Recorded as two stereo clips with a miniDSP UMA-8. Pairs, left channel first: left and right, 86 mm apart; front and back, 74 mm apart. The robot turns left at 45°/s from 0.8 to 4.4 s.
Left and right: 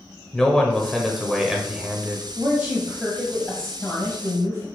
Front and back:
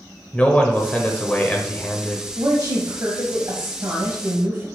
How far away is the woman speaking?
About 1.4 m.